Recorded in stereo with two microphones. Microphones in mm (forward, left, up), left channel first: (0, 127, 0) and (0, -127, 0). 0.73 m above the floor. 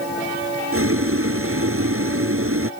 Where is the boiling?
55° right (ahead or behind).